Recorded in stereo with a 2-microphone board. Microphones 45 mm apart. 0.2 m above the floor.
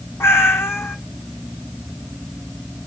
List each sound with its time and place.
0.2 s a cat meowing: 75° left (ahead or behind), 1.0 m